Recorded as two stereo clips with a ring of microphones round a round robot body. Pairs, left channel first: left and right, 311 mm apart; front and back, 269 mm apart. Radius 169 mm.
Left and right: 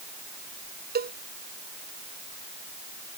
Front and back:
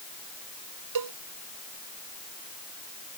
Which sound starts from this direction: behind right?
A cowbell, at 0.9 s.